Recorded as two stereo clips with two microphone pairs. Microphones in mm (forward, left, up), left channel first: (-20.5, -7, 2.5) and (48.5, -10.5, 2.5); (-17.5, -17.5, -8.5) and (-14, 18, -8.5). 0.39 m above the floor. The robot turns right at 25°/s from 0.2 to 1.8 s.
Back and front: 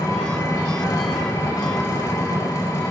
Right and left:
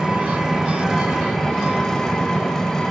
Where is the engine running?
145° left, 1.0 m; by 2.9 s 175° right, 1.0 m.